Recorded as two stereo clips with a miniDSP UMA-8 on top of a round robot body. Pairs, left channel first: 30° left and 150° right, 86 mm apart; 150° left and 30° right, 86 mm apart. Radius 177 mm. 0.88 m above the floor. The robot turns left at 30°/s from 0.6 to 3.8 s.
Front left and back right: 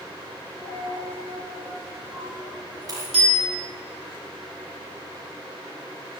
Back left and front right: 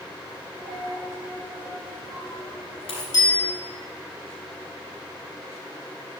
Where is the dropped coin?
130° right, 3 m; by 3.0 s 155° left, 3 m.